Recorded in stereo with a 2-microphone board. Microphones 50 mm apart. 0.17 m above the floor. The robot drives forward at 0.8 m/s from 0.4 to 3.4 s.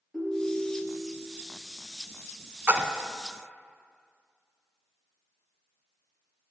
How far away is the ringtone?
About 2.5 m.